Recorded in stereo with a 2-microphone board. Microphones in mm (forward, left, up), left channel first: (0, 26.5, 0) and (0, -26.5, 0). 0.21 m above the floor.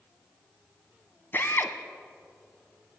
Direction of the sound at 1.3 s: 45° left (ahead or behind).